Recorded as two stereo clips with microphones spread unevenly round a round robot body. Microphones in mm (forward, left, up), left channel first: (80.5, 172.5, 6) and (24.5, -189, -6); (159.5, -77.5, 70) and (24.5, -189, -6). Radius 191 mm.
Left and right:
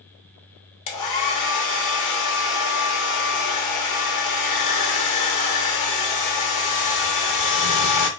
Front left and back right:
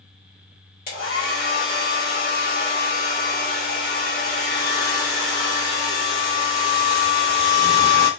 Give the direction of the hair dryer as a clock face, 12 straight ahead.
9 o'clock.